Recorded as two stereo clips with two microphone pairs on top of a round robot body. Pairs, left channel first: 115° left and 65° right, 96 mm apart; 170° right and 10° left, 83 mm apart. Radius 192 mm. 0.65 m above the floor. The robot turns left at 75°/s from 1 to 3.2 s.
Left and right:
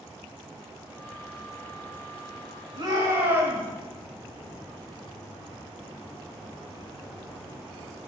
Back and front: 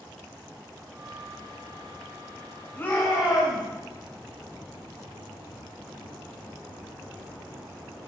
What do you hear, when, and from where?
2.8 s a shout: 100° right, 5 m; by 3.7 s 135° right, 5 m